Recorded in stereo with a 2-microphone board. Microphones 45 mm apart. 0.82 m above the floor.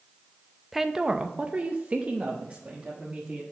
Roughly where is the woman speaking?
Centre.